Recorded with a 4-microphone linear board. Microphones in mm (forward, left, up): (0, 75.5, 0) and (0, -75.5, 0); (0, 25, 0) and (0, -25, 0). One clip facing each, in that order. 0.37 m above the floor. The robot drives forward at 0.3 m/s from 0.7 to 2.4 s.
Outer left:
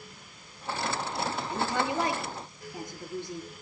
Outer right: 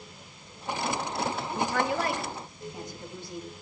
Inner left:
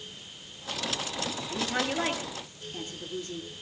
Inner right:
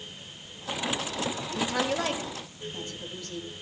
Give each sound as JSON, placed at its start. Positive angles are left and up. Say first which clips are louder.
{"t": 1.5, "sound": "a woman speaking", "louder": "outer right 1 dB, inner right 1 dB", "side_deg": 20, "distance_m": 6.0}